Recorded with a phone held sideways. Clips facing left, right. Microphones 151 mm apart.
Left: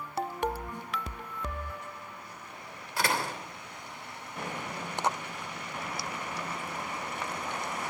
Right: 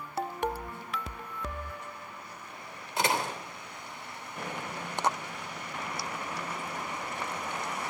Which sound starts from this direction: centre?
A snare drum, at 0.7 s.